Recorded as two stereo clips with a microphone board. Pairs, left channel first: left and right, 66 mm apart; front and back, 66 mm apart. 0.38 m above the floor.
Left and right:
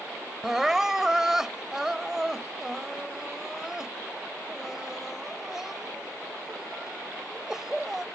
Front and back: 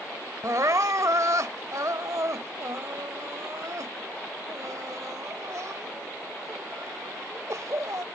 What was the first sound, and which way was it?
Crying, 170° right.